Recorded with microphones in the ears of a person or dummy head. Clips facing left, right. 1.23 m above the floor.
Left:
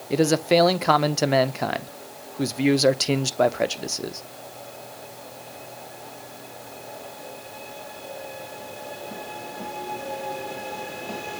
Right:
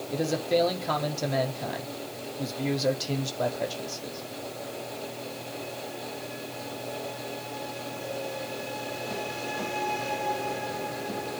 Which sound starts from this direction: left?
A man speaking, at 0.1 s.